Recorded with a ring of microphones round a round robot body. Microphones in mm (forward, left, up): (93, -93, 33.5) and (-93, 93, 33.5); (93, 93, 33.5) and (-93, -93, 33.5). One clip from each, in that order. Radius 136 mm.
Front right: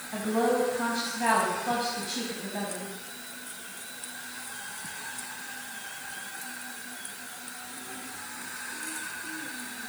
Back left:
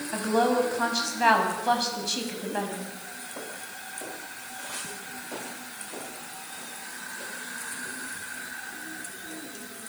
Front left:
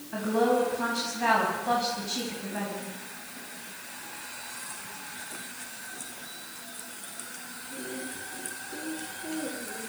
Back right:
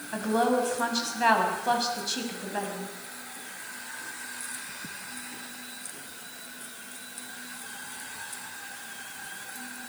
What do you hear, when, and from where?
0.1 s a woman speaking: 175° left, 6 m